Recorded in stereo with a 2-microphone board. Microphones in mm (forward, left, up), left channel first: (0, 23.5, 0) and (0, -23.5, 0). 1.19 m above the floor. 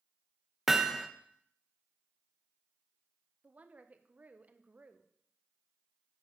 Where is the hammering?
10° right (ahead or behind), 0.6 m.